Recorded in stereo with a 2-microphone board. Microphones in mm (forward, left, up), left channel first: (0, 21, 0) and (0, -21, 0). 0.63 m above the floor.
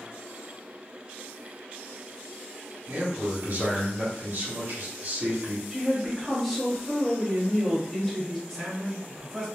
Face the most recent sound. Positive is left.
turn(degrees=-5)  # may be behind; listen again after turning